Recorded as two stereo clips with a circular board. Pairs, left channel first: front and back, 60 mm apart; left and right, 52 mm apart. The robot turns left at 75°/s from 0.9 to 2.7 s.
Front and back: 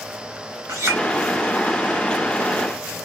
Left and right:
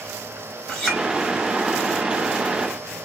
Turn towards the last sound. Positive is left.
turn(degrees=35)